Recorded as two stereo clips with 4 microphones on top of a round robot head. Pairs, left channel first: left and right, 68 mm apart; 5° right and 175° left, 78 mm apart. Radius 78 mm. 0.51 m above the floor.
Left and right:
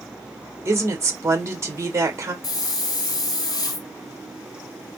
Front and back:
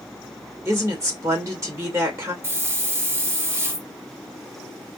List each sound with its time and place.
0.7 s a woman speaking: 135° right, 2 m
2.4 s a hiss: 120° left, 1.7 m